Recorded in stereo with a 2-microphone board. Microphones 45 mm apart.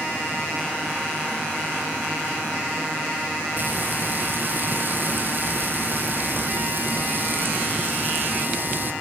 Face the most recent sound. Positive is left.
turn(degrees=-45)  # may be behind; listen again after turning